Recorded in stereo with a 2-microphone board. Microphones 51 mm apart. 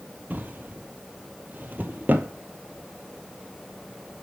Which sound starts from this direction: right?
A drawer, at 0.3 s.